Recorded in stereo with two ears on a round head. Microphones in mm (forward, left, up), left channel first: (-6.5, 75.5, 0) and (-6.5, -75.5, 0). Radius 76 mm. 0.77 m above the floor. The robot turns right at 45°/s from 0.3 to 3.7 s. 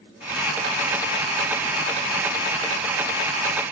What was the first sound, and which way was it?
Only background noise.